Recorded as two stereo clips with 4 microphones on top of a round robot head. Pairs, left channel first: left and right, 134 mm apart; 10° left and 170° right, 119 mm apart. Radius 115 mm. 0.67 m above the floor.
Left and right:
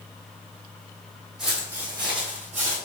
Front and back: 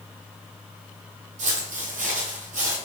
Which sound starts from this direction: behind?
Footsteps, at 1.4 s.